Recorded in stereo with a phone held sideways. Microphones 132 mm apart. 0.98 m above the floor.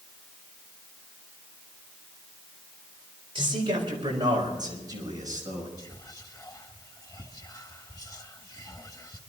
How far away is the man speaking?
About 4.5 m.